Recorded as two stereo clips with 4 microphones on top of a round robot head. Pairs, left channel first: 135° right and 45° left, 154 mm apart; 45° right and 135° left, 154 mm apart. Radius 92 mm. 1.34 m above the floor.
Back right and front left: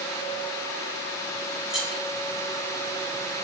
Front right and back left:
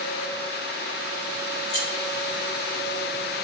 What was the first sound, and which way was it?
Keys jangling, 40° right.